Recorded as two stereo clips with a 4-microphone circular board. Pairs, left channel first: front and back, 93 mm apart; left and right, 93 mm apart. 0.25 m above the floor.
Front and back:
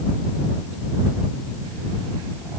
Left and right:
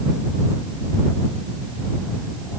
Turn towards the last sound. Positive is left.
No sound to turn to.